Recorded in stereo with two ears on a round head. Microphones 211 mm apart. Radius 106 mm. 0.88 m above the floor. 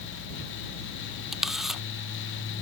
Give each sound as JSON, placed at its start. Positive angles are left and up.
{"t": 1.3, "sound": "a camera shutter", "side_deg": 0}